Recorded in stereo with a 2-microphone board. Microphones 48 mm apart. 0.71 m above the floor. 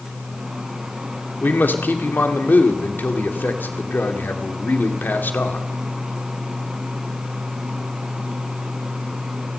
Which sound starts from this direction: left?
A man speaking, at 1.4 s.